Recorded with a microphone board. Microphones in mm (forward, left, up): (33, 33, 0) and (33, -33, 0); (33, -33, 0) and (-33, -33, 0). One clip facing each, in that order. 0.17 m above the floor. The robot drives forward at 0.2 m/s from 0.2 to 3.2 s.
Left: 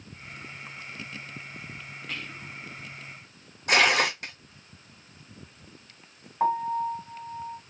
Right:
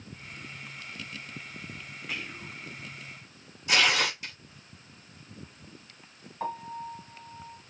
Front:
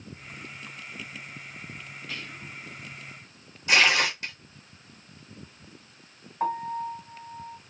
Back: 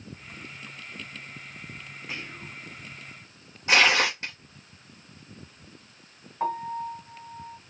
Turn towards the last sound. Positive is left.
turn(degrees=90)